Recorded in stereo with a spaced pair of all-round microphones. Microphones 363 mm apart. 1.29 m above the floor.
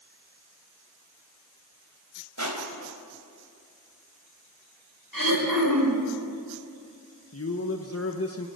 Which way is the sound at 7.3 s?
40° left (ahead or behind).